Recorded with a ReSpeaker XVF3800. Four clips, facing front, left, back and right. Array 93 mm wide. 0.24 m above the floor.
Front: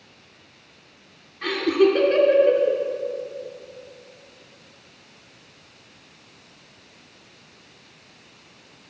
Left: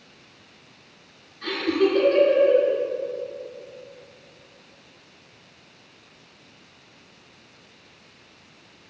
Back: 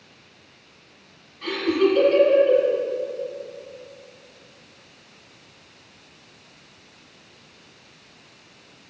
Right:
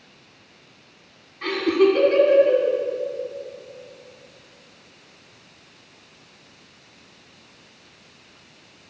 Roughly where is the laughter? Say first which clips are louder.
Right 4 dB, front 2 dB; ahead right.